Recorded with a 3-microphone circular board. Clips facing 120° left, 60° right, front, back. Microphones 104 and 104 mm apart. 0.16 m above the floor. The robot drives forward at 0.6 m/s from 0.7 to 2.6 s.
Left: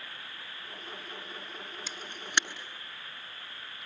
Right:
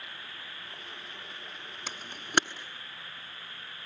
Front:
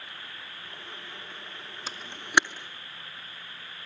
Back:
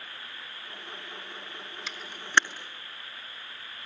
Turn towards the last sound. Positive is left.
turn(degrees=-90)